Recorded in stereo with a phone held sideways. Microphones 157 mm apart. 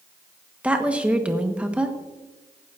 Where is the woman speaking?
10° right (ahead or behind), 1.0 m.